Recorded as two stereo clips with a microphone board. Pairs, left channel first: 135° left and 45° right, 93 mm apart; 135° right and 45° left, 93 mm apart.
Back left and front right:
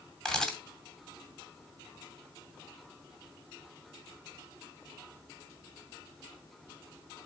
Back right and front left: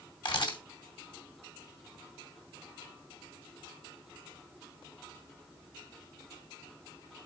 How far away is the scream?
I don't hear a scream.